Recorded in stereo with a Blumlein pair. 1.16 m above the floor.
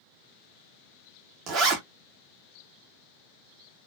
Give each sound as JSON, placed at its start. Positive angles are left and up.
{"t": 1.5, "sound": "a zipper", "azimuth_deg": -30, "distance_m": 1.0}